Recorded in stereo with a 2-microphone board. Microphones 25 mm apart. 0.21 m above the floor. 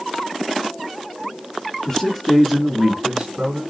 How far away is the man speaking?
About 1.0 m.